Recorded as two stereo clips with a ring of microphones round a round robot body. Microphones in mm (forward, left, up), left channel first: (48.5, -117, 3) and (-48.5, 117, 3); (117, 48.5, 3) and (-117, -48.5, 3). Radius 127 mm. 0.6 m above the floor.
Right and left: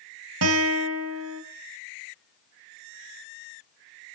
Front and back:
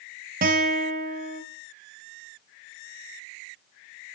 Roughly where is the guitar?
Behind left.